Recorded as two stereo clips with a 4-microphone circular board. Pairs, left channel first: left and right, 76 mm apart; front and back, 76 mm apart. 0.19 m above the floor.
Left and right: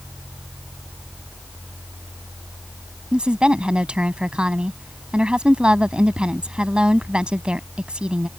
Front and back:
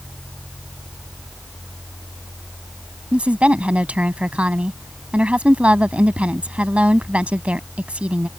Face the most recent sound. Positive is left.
turn(degrees=-140)